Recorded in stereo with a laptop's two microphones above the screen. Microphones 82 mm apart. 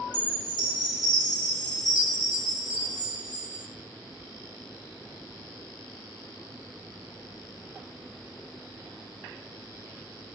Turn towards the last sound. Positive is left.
turn(degrees=50)  # may be behind; listen again after turning